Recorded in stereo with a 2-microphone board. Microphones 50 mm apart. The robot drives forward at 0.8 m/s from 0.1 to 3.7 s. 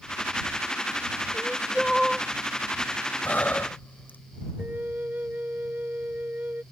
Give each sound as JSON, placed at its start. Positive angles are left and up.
{"t": 1.3, "sound": "crying", "side_deg": 5}
{"t": 3.2, "sound": "breathing", "side_deg": 35}
{"t": 4.6, "sound": "a flute", "side_deg": -35}